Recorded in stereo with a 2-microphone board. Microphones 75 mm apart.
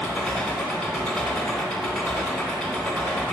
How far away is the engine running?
About 1.0 m.